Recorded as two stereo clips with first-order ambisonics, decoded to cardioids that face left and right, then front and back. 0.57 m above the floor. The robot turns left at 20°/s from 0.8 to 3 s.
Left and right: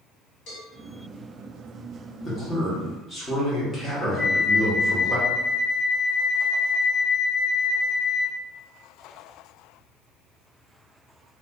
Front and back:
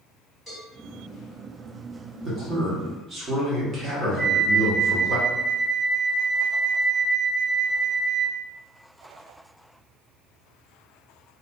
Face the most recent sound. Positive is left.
turn(degrees=145)